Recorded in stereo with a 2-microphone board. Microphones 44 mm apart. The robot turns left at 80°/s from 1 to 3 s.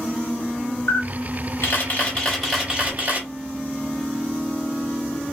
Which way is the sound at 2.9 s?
45° right (ahead or behind).